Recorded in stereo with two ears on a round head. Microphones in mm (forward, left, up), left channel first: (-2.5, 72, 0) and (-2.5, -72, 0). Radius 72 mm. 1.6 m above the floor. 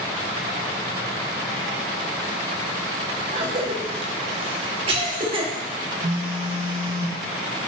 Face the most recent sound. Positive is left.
turn(degrees=-60)  # may be behind; listen again after turning